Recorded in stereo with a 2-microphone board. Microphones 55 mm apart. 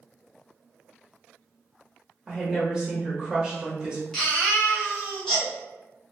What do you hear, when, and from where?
2.3 s a woman speaking: 20° right (ahead or behind), 1.1 m
4.1 s a baby crying: 15° left (ahead or behind), 1.3 m